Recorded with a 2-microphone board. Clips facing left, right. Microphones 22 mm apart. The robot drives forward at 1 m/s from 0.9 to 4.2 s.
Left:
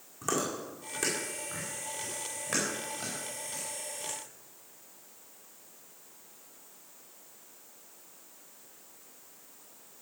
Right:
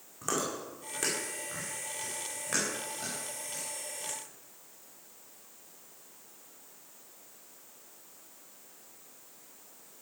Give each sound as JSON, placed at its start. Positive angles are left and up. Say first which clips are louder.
{"t": 0.2, "sound": "chewing", "louder": "left 1 dB", "side_deg": -5, "distance_m": 6.0}